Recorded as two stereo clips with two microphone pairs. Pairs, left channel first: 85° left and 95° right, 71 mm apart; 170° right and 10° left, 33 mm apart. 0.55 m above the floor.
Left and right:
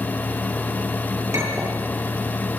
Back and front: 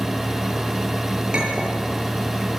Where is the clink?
50° right, 8 m.